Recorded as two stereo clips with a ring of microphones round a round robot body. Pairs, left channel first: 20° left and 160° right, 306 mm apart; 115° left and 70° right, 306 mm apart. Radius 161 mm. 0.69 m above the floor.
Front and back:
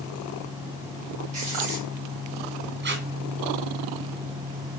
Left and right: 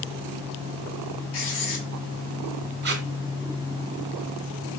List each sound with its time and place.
1.3 s writing: 130° left, 4 m
2.8 s tape being pulled: 115° right, 1.5 m